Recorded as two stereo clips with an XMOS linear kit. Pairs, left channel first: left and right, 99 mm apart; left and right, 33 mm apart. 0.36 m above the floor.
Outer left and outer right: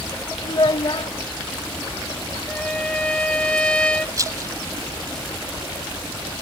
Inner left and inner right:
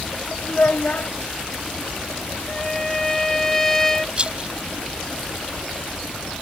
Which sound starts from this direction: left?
A child speaking, at 0.4 s.